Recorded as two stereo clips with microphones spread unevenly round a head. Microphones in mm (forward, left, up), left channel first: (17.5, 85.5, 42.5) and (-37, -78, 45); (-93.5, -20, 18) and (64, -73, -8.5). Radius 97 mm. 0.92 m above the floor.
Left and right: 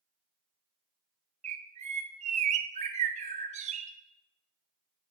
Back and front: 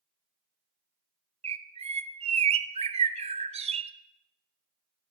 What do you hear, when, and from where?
1.4 s a bird: 65° right, 0.7 m